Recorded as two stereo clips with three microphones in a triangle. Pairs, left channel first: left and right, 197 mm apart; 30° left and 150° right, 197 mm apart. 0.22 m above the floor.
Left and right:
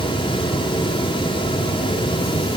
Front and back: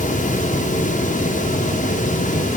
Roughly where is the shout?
I don't hear a shout.